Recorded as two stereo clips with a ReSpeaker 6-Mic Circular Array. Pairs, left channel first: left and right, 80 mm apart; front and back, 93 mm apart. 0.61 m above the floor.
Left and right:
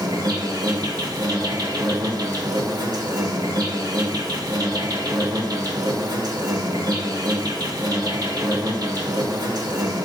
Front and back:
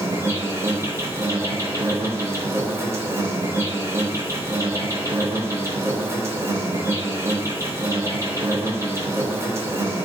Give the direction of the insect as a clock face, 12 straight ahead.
4 o'clock.